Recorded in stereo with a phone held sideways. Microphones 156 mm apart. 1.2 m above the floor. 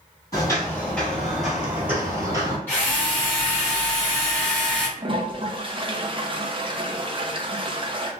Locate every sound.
0.3 s footsteps: 20° left (ahead or behind), 1.9 m; by 2.6 s 25° right (ahead or behind), 1.8 m
2.7 s a drill: 15° left (ahead or behind), 1.5 m
5.0 s a toilet flushing: 35° right (ahead or behind), 0.5 m